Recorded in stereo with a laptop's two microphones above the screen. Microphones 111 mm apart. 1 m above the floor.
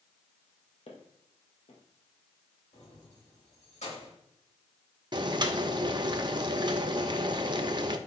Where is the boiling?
40° right (ahead or behind), 0.8 m.